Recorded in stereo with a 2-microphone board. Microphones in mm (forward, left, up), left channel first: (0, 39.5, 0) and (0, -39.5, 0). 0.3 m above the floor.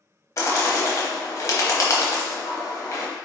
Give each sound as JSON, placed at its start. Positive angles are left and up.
{"t": 0.4, "sound": "a bird", "side_deg": 40, "distance_m": 0.8}